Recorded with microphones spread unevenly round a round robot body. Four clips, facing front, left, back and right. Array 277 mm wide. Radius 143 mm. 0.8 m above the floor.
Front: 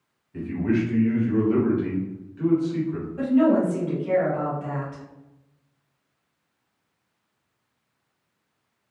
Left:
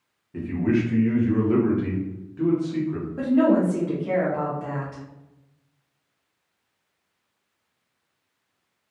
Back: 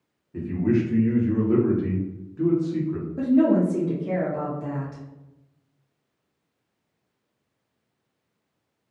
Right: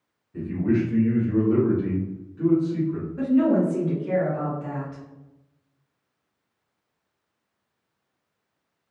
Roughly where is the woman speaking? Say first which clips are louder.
Left 1 dB, even; behind.